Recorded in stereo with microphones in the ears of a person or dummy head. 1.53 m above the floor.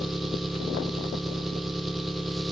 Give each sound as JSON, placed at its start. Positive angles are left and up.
{"t": 0.0, "sound": "an engine running", "side_deg": -5, "distance_m": 0.8}